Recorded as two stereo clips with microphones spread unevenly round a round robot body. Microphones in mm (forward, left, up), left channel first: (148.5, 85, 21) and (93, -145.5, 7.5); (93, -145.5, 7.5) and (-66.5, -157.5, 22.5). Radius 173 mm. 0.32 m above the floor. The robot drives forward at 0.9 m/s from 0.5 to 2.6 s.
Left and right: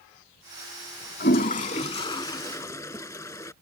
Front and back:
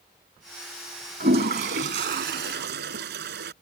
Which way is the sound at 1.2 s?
135° left.